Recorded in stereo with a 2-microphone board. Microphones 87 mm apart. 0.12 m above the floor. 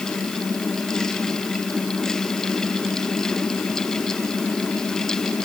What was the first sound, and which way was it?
Only background noise.